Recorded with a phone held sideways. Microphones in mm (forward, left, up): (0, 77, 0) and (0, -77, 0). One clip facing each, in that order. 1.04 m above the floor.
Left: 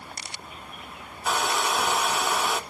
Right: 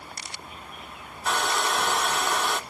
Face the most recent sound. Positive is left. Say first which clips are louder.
# even
turn(degrees=5)  # may be behind; listen again after turning